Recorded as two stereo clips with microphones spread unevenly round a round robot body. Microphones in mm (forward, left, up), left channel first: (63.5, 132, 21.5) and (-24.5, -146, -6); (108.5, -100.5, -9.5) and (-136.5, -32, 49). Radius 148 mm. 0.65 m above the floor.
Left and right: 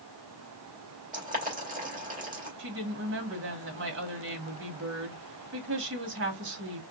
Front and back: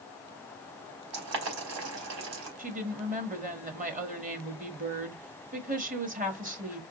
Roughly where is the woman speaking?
Behind right.